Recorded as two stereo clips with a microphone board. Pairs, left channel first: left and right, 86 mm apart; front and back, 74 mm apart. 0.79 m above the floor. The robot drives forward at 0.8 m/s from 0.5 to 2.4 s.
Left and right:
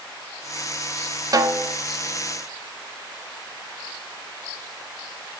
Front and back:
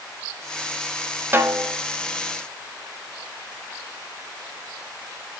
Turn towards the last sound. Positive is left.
turn(degrees=-150)